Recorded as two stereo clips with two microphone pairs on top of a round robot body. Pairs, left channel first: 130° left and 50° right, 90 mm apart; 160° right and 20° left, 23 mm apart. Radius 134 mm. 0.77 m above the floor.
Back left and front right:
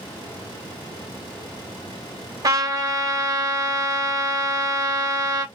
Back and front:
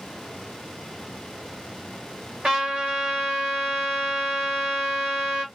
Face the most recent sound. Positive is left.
turn(degrees=-15)